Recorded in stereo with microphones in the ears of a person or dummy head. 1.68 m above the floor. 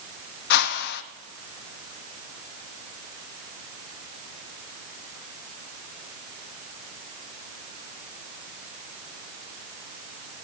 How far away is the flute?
No flute in this recording.